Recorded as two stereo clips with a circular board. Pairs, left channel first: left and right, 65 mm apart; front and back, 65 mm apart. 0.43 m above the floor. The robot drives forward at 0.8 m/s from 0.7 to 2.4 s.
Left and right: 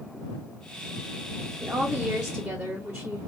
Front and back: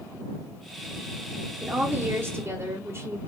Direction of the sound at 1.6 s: 135° right.